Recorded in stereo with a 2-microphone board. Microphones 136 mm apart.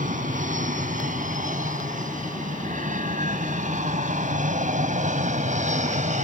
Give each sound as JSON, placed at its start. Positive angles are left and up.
{"t": 0.0, "sound": "an aircraft", "side_deg": -75}